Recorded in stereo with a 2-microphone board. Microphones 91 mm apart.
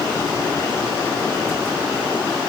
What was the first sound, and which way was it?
Only background noise.